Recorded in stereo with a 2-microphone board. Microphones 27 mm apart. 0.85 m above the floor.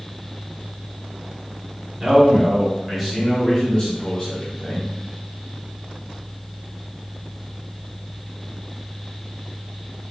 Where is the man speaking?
25° right (ahead or behind), 1.0 m; by 4.9 s 50° left (ahead or behind), 1.3 m.